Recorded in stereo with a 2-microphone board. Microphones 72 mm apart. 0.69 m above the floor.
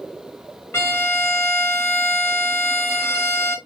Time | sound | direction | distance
0.7 | a violin | 35° left (ahead or behind) | 0.7 m